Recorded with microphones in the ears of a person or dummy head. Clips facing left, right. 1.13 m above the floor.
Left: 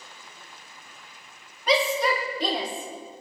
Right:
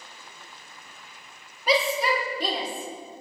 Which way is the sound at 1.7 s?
5° right (ahead or behind).